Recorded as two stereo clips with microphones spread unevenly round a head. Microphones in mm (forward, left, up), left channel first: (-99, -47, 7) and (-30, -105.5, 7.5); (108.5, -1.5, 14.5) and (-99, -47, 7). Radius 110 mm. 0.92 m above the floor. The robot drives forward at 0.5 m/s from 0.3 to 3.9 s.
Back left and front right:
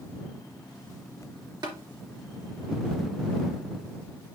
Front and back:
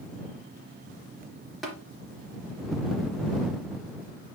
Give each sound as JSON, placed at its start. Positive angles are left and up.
{"t": 1.6, "sound": "tapping", "azimuth_deg": -75, "distance_m": 3.0}